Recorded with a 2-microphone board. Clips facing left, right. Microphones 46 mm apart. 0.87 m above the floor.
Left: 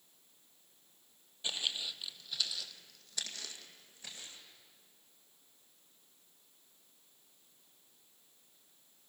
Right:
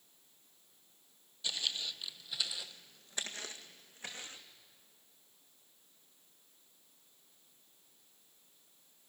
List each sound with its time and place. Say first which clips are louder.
1.4 s footsteps: even; 25° left (ahead or behind), 1.0 m; by 4.4 s 45° right (ahead or behind), 2.5 m